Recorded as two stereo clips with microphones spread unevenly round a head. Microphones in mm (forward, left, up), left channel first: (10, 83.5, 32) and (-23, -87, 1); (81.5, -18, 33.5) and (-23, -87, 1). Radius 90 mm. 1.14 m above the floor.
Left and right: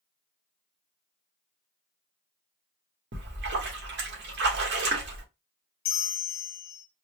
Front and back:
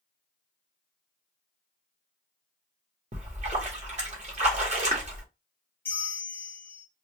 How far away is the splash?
About 1.8 m.